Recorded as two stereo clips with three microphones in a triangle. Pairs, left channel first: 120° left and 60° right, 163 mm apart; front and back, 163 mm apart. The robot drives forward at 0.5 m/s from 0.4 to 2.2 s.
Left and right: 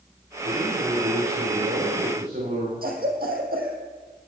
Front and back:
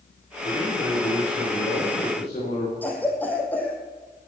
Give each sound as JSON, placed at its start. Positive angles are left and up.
{"t": 0.4, "sound": "a man speaking", "azimuth_deg": -50, "distance_m": 9.0}
{"t": 2.8, "sound": "a cough", "azimuth_deg": -80, "distance_m": 4.0}